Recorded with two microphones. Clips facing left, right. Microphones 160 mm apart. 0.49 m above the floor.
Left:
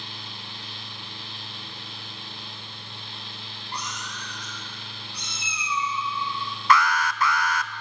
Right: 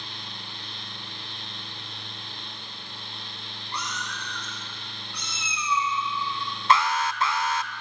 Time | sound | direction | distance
3.7 | a cat meowing | 40° left (ahead or behind) | 8.5 m
6.7 | an alarm | 25° right (ahead or behind) | 0.9 m